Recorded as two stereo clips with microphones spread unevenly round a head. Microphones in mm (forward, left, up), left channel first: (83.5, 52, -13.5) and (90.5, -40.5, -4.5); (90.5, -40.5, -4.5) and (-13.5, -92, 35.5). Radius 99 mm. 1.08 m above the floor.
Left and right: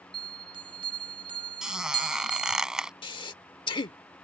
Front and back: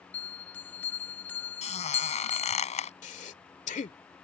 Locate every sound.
0.1 s a bell: 50° right
1.6 s a squeak: 5° right
3.0 s breathing: 80° left